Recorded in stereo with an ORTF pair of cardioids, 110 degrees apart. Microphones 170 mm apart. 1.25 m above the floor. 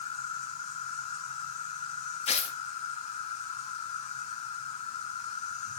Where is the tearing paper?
40° left, 2 m.